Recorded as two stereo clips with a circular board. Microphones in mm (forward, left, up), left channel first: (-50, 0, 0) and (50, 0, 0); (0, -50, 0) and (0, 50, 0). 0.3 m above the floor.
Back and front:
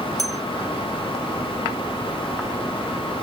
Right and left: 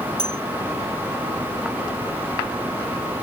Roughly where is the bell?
Left.